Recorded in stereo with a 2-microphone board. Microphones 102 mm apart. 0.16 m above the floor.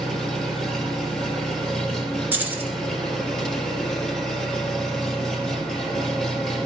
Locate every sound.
0.0 s an engine running: 5° left (ahead or behind), 2 m
2.3 s keys jangling: 20° right (ahead or behind), 1.7 m